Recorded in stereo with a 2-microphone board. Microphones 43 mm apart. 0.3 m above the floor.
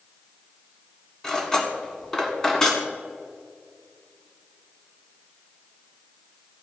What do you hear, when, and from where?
1.2 s cutlery clinking: 15° left (ahead or behind), 1.6 m